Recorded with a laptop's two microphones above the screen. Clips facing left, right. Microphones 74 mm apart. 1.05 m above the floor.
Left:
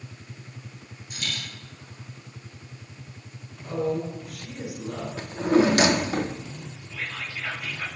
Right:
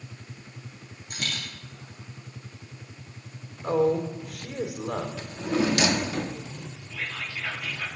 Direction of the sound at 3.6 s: 80° right.